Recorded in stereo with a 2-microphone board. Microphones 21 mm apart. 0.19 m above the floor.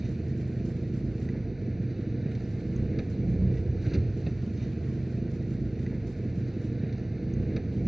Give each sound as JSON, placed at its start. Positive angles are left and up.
{"t": 0.0, "sound": "an engine running", "side_deg": -10, "distance_m": 0.9}